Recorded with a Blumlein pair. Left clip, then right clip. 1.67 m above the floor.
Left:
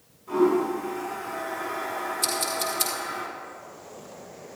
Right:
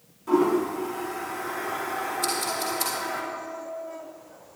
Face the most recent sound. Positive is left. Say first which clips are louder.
# left 2 dB
turn(degrees=40)